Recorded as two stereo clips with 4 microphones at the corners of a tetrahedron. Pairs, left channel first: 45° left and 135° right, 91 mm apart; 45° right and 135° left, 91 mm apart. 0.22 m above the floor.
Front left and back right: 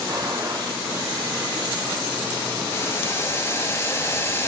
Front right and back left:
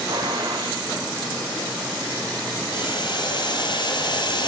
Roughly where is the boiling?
Ahead.